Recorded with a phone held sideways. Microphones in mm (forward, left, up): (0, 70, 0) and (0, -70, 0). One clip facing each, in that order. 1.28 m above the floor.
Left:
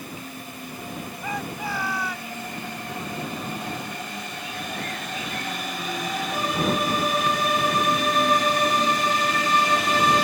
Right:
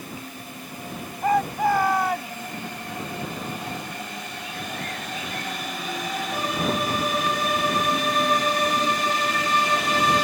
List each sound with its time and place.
1.2 s a shout: 50° right (ahead or behind)